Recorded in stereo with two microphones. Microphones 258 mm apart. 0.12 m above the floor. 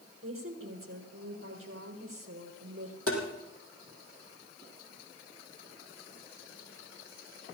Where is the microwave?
No microwave in this recording.